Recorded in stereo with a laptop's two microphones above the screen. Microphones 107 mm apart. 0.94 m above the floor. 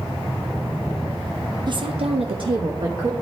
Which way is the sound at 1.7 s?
45° right (ahead or behind).